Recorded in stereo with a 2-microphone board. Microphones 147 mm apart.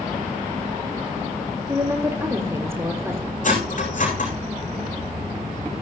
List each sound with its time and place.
1.7 s a woman speaking: 15° right (ahead or behind), 4 m
3.4 s cutlery clinking: 60° left (ahead or behind), 9 m